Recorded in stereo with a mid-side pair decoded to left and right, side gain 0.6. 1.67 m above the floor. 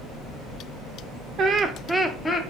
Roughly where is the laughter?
Ahead right.